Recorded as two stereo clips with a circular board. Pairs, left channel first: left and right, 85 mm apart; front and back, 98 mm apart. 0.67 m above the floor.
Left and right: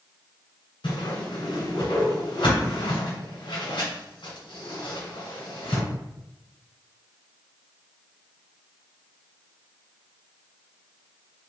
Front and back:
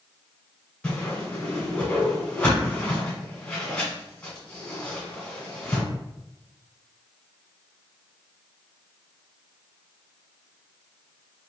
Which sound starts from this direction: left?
A whoosh, at 0.8 s.